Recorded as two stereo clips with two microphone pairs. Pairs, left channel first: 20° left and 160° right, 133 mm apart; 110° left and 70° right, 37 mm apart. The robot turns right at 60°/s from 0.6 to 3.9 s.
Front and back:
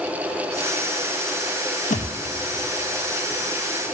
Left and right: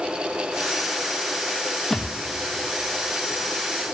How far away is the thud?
About 0.7 m.